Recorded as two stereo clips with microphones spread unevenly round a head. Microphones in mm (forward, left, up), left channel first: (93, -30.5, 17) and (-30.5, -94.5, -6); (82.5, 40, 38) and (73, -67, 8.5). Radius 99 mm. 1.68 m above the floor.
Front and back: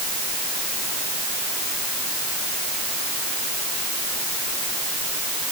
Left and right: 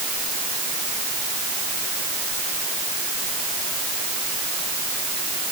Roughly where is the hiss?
I don't hear a hiss.